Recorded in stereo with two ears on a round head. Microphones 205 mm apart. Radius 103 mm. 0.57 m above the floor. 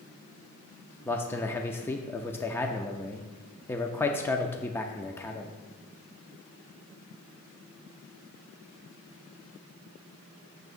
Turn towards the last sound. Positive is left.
turn(degrees=10)  # may be behind; listen again after turning